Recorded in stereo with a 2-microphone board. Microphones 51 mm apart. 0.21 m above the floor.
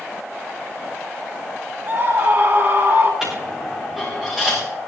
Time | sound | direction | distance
1.9 | a scream | 50° right (ahead or behind) | 1.7 m
3.2 | a dropped coin | 10° right (ahead or behind) | 7.5 m